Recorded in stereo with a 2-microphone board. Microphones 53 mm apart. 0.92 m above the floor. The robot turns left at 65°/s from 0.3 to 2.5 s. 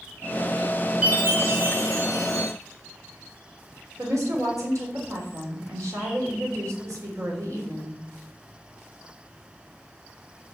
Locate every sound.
1.0 s a chime: 20° right, 3.5 m; by 2.5 s 115° right, 3.5 m
4.0 s a woman speaking: 80° right, 3 m